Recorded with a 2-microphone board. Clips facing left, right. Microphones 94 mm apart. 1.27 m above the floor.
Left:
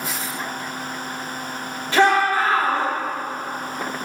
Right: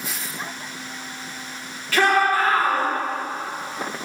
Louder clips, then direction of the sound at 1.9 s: Left 2 dB; 25° left (ahead or behind).